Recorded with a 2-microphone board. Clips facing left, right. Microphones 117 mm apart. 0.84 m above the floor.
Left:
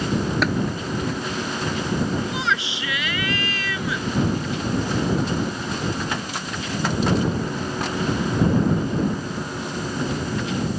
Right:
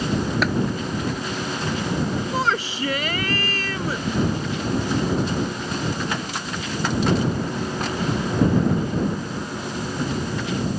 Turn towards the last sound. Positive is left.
turn(degrees=-40)  # may be behind; listen again after turning